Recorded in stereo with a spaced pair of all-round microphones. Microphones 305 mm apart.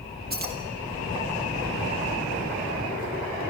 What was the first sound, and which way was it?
Keys jangling, 30° right (ahead or behind).